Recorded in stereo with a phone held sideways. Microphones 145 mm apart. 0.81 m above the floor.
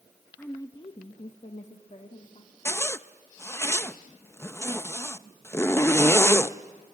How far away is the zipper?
About 0.5 m.